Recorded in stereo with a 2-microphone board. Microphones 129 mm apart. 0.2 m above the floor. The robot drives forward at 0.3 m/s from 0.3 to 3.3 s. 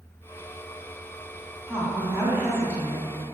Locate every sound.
1.7 s a woman speaking: 20° right (ahead or behind), 1.2 m